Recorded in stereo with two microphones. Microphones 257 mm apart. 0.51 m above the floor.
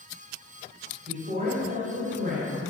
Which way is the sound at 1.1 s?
35° right (ahead or behind).